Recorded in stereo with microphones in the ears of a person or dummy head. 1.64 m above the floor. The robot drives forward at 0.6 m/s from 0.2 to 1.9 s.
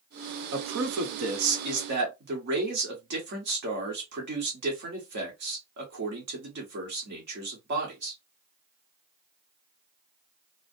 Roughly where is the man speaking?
Right.